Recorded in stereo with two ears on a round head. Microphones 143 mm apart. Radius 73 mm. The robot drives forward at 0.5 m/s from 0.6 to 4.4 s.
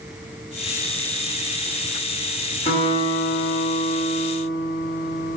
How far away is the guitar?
About 1.4 m.